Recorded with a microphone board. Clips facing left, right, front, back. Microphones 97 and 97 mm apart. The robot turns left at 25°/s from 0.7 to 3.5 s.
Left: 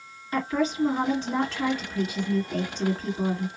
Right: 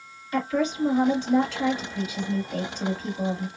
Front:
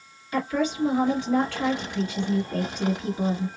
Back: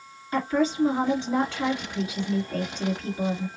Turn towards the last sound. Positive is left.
turn(degrees=65)